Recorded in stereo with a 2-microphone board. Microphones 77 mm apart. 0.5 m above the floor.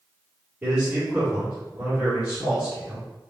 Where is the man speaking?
20° right (ahead or behind), 1.4 m.